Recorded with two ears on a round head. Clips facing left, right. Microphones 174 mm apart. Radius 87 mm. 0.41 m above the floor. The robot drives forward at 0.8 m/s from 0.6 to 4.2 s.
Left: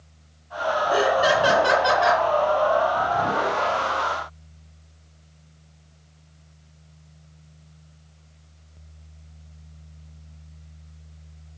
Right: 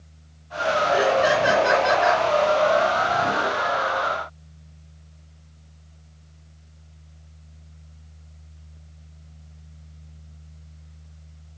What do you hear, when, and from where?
0.9 s laughter: 40° left (ahead or behind), 7.5 m; by 2.2 s 45° left (ahead or behind), 7 m